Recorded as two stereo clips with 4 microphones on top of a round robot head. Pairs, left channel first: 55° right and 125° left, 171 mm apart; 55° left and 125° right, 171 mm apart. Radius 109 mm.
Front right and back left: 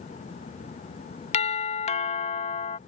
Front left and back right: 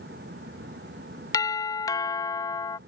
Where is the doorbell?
10° right.